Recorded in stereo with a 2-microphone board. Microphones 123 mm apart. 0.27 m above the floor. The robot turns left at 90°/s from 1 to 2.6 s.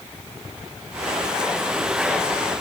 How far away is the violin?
I don't hear a violin.